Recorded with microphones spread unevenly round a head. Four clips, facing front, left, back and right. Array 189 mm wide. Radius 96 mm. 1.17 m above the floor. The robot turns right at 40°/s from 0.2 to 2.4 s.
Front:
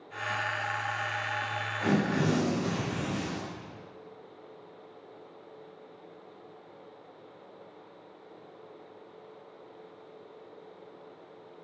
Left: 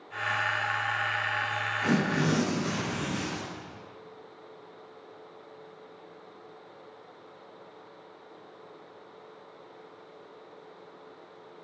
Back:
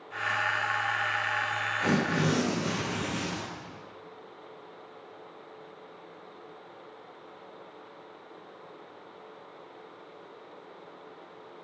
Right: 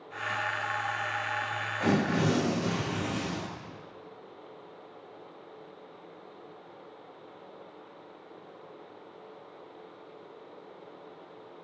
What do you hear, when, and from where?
1.8 s tearing paper: 95° right, 7 m; by 3.4 s 70° right, 7 m